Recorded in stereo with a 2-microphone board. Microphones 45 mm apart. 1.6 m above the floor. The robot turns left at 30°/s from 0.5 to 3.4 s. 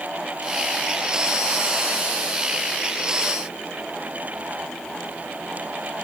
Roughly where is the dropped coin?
No dropped coin in this recording.